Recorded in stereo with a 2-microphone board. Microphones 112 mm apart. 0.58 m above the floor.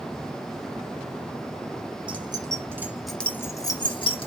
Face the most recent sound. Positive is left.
turn(degrees=55)  # may be behind; listen again after turning